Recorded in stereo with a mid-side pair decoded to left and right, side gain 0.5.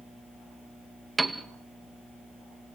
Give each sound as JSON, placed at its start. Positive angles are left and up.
{"t": 1.2, "sound": "a piano", "azimuth_deg": -15, "distance_m": 2.0}